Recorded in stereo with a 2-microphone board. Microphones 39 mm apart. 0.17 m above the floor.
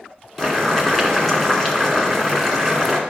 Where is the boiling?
10° left (ahead or behind), 2 m.